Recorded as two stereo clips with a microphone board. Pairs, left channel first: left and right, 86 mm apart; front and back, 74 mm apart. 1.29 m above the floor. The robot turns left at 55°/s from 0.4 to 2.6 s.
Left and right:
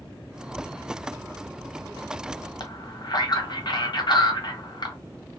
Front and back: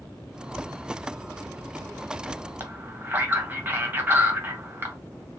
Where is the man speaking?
120° left, 0.9 m.